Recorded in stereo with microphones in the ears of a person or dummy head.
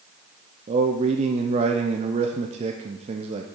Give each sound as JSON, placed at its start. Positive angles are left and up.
{"t": 0.7, "sound": "a man speaking", "side_deg": -35, "distance_m": 0.7}